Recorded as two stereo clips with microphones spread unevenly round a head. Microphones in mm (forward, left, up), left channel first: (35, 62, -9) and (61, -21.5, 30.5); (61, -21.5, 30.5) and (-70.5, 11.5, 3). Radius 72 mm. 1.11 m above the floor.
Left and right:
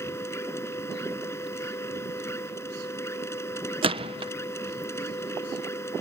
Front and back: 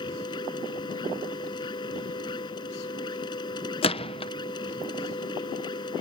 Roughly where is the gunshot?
Ahead right.